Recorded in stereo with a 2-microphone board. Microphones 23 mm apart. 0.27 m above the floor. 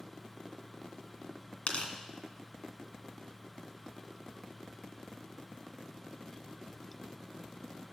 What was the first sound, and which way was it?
Tearing paper, 55° left (ahead or behind).